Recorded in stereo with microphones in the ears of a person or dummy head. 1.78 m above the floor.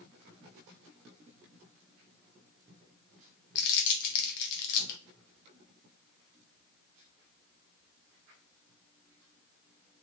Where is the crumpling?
60° left (ahead or behind), 0.5 m.